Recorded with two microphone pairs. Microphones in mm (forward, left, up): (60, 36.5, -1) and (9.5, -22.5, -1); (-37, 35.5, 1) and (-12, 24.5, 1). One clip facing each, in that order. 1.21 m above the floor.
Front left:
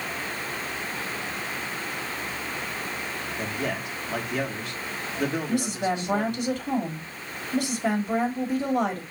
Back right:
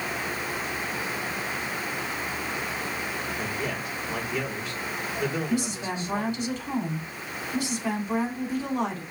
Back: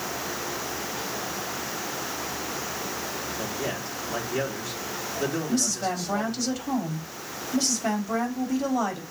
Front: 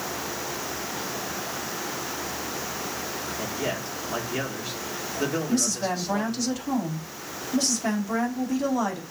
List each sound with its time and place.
3.4 s a man speaking: 40° left, 4 m
5.5 s a woman speaking: 65° left, 3.5 m